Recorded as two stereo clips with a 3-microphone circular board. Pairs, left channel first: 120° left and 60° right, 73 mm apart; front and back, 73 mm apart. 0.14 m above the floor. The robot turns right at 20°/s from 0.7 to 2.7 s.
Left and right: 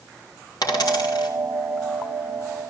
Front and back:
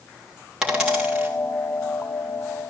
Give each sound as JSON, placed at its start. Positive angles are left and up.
{"t": 0.6, "sound": "a dropped coin", "azimuth_deg": 95, "distance_m": 3.0}